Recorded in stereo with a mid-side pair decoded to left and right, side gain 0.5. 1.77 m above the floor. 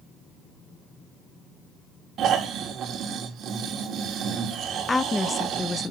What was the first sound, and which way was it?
Snoring, 65° right.